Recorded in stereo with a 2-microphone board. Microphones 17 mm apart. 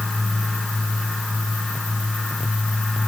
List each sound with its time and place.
Only background noise.